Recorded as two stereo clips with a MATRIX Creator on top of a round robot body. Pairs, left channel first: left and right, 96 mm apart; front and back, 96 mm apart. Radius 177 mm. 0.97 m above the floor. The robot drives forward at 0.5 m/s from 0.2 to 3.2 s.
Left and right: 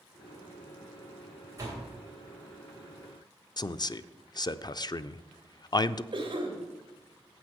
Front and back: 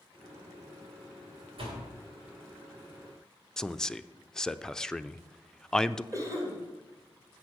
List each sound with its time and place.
1.6 s a door slam: 150° right, 3 m; by 1.9 s 155° right, 3 m
3.6 s a man speaking: 80° left, 0.5 m
6.1 s a cough: 125° right, 2.5 m